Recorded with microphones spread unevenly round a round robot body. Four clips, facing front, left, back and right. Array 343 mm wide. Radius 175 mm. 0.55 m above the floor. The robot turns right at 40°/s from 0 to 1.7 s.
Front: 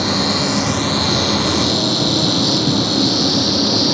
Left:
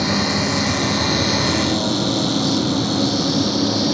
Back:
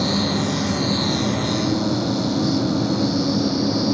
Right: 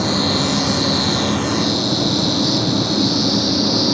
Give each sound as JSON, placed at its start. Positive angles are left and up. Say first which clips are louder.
{"t": 0.0, "sound": "an insect", "louder": "right 1 dB, front 3 dB", "azimuth_deg": -75}